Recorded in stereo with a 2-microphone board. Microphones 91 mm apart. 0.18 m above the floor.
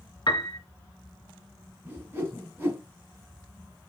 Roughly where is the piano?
Left.